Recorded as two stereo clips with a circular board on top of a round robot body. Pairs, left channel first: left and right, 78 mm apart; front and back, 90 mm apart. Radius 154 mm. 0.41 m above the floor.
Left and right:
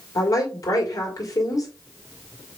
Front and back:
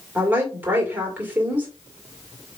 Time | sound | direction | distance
0.1 | a woman speaking | 115° left | 2 m